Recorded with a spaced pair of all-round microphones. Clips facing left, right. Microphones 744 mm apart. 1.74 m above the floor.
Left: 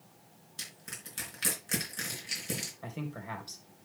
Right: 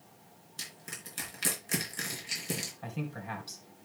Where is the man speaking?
25° right (ahead or behind), 2 m.